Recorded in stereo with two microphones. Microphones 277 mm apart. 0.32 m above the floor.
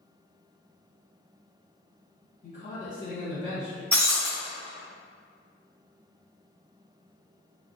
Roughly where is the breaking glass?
Right.